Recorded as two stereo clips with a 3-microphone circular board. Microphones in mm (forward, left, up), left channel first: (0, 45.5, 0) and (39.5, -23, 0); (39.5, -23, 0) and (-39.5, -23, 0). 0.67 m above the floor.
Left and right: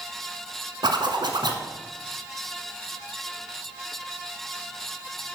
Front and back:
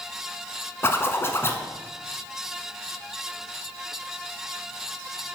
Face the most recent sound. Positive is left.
turn(degrees=-60)